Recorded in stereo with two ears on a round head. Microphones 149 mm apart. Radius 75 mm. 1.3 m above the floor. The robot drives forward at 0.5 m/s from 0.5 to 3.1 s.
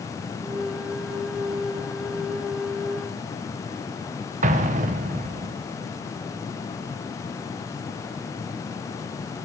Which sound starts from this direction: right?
An explosion, at 4.4 s.